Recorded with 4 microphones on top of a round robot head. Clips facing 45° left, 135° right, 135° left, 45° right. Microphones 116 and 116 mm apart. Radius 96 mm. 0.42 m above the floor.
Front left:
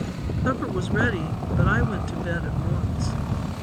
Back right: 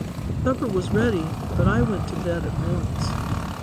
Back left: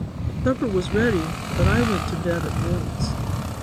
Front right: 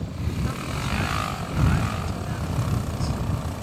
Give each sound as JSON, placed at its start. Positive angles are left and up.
{"t": 0.5, "sound": "a woman speaking", "azimuth_deg": 165}